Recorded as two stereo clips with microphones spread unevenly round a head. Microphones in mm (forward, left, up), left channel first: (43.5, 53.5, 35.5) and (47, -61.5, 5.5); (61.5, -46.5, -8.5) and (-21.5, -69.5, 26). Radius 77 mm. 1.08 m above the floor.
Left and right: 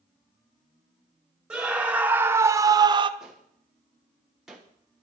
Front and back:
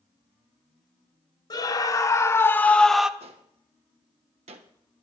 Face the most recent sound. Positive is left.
turn(degrees=-170)